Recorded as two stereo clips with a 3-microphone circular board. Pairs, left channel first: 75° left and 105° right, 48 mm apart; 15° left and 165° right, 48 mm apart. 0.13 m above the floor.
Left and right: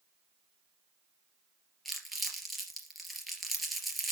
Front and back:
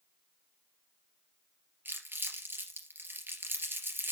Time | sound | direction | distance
1.9 | crumpling | 165° left | 2.5 m